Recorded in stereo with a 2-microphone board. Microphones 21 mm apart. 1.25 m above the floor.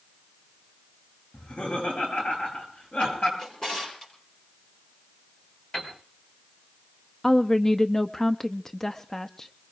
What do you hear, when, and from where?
1.3 s laughter: 80° left, 9.5 m; by 3.3 s 85° left, 11 m
3.4 s a drawer: 30° left (ahead or behind), 7 m
5.7 s a piano: 60° left (ahead or behind), 5 m
7.2 s a woman speaking: 15° left (ahead or behind), 0.5 m